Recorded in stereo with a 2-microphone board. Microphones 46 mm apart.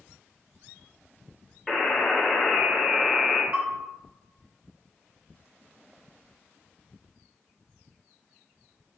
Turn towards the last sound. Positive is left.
turn(degrees=-40)  # may be behind; listen again after turning